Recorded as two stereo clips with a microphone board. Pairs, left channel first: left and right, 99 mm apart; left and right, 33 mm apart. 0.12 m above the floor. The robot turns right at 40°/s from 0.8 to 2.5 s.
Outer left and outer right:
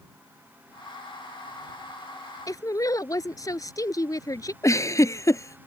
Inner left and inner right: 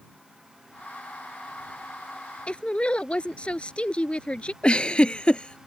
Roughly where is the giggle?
Left.